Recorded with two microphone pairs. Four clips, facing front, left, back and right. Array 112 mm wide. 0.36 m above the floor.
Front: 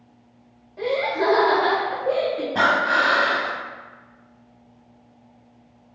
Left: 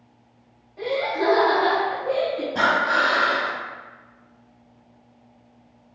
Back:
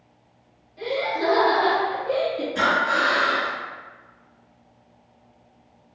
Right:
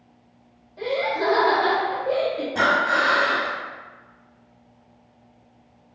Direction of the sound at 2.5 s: 5° left.